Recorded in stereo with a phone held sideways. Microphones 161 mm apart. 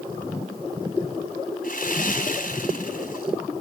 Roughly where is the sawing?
Left.